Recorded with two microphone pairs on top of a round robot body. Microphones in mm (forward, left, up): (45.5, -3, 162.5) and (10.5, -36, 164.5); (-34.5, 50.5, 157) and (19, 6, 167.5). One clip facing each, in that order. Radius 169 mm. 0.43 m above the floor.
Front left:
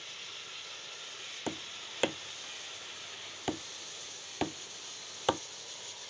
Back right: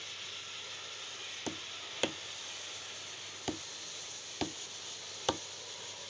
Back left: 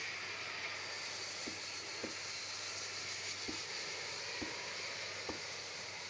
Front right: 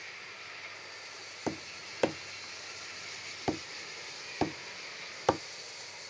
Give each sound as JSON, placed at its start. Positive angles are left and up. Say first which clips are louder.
{"t": 1.5, "sound": "tapping", "louder": "front left 4 dB, front right 9 dB", "azimuth_deg": -30}